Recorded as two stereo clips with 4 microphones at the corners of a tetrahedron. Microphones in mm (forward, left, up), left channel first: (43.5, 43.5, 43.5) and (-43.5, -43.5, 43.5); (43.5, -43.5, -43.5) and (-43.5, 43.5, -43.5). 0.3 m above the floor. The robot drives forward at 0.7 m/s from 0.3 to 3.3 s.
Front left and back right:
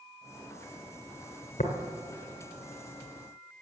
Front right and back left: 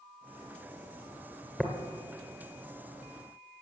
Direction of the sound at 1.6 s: 40° left.